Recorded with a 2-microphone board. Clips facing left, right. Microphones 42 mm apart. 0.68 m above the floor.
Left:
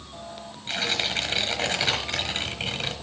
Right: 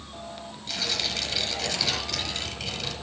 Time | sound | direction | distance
0.7 | tearing paper | 40° left (ahead or behind) | 1.2 m